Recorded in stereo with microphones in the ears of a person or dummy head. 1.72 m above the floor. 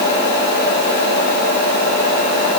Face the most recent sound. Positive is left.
No sound to turn to.